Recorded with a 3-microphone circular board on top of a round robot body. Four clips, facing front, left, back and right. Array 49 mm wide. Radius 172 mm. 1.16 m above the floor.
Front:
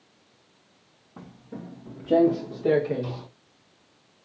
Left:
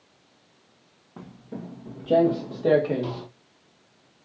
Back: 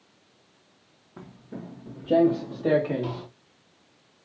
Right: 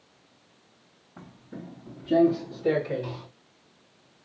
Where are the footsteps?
70° left, 1.4 m; by 3.3 s 120° left, 2.5 m.